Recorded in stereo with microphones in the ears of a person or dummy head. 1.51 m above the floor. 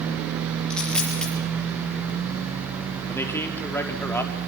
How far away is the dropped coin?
About 7.5 m.